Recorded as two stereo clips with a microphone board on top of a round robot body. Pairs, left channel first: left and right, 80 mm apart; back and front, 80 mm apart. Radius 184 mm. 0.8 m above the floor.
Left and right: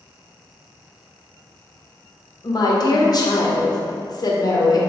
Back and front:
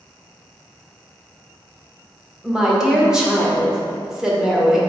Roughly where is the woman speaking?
Left.